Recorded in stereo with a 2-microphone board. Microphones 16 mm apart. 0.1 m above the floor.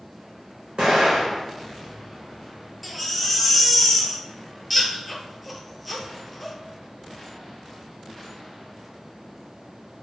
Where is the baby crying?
5° left (ahead or behind), 0.6 m.